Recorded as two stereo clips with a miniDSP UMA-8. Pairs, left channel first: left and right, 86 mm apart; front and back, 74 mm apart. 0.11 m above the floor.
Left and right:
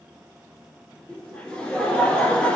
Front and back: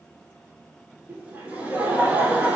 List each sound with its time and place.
1.1 s laughter: 150° left, 1.2 m